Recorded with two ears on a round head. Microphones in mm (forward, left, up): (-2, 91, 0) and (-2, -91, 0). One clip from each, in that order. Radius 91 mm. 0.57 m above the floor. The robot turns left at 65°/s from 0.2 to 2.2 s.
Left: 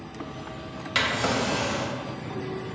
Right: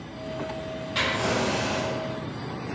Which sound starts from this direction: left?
A drawer, at 0.9 s.